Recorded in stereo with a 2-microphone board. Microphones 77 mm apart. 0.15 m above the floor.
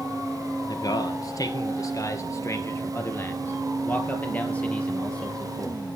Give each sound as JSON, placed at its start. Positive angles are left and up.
{"t": 0.7, "sound": "a man speaking", "side_deg": 55, "distance_m": 2.5}